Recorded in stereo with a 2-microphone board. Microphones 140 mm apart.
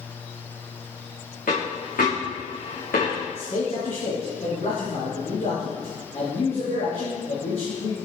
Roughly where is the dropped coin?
Left.